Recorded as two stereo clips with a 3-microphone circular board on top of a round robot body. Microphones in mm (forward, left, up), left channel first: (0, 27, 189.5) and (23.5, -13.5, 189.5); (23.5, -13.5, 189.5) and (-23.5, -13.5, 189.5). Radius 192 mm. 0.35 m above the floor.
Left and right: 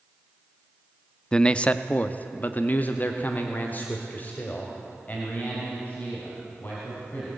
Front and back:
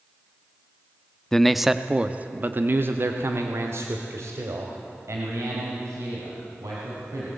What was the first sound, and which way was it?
A man speaking, 65° left.